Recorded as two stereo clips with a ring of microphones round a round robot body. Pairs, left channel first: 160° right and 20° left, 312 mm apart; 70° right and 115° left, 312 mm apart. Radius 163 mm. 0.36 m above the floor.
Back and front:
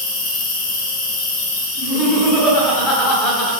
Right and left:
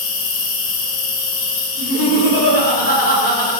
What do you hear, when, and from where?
0.0 s an insect: 100° right, 0.8 m
1.8 s laughter: 60° right, 1.5 m